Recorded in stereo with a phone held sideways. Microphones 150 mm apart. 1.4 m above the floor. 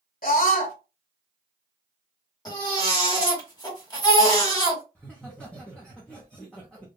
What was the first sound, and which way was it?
A scream, 70° left (ahead or behind).